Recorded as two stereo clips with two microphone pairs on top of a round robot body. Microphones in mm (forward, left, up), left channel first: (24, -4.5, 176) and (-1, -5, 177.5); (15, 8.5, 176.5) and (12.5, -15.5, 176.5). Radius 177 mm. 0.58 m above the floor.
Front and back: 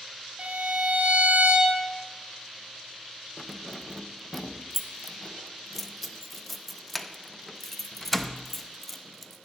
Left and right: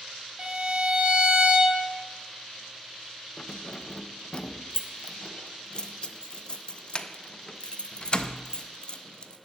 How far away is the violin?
About 1.8 m.